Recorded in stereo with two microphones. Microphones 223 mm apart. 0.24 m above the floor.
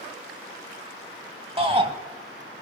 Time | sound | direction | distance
1.6 | a shout | 25° right (ahead or behind) | 1.3 m